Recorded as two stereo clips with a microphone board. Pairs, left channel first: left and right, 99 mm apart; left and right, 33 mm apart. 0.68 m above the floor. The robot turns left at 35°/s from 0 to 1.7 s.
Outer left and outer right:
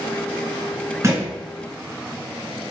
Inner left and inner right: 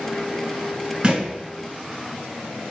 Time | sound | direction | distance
1.0 | a thud | 30° right (ahead or behind) | 1.6 m